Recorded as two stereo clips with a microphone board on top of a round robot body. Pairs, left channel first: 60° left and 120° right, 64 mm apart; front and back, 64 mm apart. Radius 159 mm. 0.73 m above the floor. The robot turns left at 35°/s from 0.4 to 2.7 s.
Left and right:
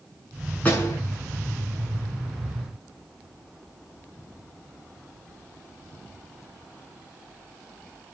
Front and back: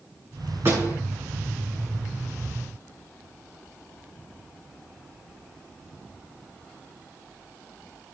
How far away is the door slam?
About 7 m.